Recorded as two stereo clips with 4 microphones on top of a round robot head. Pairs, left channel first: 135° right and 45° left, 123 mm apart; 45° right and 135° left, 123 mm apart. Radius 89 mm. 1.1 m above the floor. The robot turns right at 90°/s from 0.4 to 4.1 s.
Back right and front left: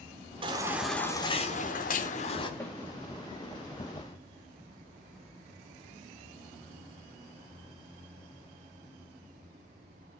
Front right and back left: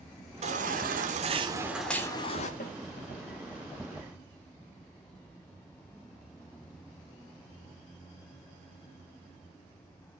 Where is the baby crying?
95° left, 3 m; by 2.5 s 75° right, 3 m.